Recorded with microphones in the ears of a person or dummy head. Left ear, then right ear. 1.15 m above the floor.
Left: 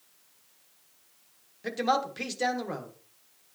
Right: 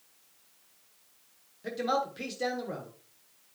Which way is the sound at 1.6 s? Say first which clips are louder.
Left 3 dB; 25° left (ahead or behind).